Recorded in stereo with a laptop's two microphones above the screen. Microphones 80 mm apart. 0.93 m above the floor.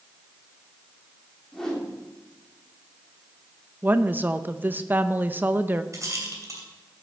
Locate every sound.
1.5 s a whoosh: 5° left (ahead or behind), 3 m
3.8 s a woman speaking: 25° right (ahead or behind), 0.6 m
5.9 s a rattle: 45° right (ahead or behind), 2.5 m